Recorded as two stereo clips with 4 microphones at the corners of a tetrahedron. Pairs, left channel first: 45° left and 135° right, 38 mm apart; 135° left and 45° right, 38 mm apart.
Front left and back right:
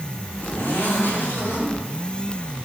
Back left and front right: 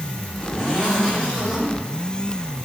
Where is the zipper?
80° left, 7 m.